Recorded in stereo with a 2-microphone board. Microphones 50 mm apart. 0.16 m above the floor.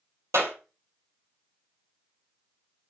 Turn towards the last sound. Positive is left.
turn(degrees=-70)  # may be behind; listen again after turning